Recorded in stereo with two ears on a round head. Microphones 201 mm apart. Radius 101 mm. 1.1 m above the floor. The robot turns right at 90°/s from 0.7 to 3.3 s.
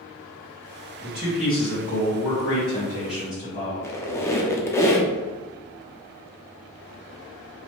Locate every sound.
1.0 s a man speaking: 40° right, 1.4 m; by 3.7 s 170° left, 1.4 m
3.8 s a squeak: 10° left (ahead or behind), 0.6 m